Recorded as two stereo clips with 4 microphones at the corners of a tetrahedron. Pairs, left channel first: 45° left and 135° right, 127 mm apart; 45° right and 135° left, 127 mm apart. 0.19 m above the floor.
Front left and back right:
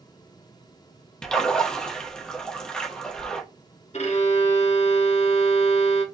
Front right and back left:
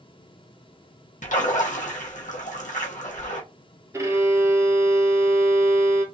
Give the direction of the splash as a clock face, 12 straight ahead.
1 o'clock.